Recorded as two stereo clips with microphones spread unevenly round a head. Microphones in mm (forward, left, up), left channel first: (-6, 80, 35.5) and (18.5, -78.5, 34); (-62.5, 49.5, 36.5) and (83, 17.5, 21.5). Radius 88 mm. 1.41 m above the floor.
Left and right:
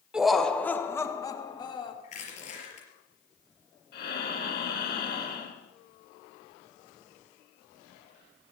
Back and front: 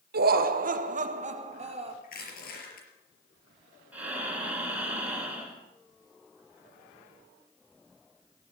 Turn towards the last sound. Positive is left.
turn(degrees=70)